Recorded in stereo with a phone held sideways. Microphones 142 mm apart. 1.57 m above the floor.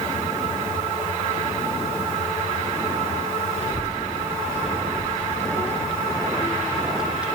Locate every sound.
3.6 s a child speaking: 45° left (ahead or behind), 1.7 m; by 7.3 s 10° right (ahead or behind), 0.9 m